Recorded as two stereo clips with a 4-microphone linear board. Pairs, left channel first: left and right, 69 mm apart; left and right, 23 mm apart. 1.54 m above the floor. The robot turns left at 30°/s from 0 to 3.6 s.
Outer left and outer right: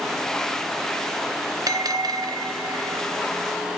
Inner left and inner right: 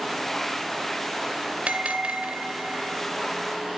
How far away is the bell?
About 0.6 m.